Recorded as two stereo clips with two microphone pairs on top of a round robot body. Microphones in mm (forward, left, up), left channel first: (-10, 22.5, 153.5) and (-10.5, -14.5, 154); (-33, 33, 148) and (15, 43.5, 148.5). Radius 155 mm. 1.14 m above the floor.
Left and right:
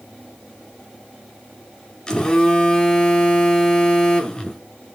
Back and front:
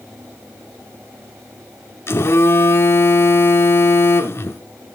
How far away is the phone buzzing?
About 1.1 m.